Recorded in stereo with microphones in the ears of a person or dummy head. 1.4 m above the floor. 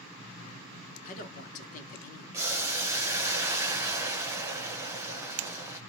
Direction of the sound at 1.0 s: 45° left (ahead or behind).